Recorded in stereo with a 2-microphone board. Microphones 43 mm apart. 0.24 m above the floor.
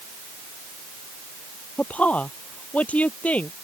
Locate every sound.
1.8 s a woman speaking: 35° left (ahead or behind)